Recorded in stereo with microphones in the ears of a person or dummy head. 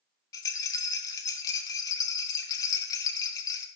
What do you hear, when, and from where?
0.3 s a rattle: 10° left (ahead or behind), 0.7 m